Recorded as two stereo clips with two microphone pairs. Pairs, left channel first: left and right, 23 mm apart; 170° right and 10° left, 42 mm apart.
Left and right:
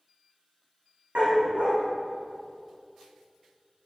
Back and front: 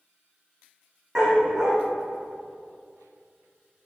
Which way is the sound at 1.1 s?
65° right.